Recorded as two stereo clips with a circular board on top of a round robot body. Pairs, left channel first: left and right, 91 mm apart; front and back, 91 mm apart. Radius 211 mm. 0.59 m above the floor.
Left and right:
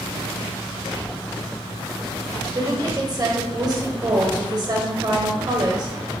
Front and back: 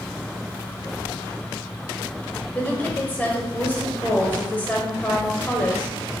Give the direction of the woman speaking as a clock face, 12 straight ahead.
2 o'clock.